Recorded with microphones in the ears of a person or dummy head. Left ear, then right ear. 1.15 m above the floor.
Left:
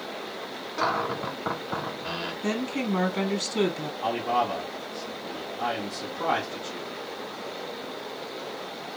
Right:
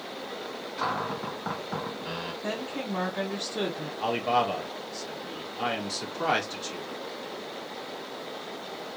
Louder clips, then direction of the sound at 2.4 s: Left 5 dB; 20° left (ahead or behind).